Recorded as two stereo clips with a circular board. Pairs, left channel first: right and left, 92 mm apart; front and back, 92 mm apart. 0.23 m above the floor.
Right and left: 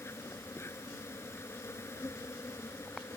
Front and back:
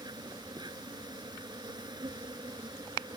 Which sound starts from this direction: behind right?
An insect, at 0.0 s.